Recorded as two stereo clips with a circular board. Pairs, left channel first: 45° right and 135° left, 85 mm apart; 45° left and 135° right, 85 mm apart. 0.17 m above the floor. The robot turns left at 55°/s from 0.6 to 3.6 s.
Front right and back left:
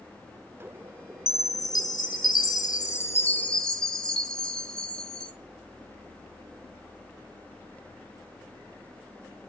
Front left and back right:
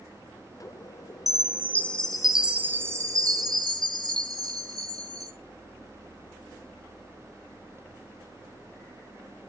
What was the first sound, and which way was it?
A chime, 5° left.